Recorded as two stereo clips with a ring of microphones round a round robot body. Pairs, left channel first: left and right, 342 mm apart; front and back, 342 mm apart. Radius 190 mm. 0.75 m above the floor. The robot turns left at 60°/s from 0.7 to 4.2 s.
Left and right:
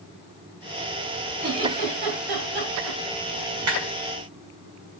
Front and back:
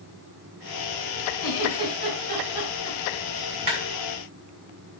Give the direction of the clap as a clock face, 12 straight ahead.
5 o'clock.